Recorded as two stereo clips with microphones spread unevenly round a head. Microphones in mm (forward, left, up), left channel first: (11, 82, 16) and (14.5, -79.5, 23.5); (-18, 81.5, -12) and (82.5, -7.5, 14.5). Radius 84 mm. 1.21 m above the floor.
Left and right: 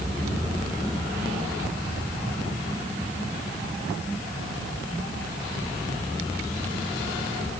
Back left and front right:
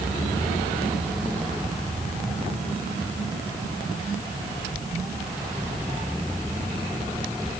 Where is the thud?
No thud in this recording.